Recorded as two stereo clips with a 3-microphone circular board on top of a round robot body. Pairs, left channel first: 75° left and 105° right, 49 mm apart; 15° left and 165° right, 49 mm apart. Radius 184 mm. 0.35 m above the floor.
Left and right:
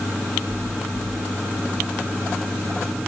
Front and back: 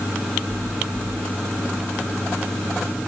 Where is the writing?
No writing in this recording.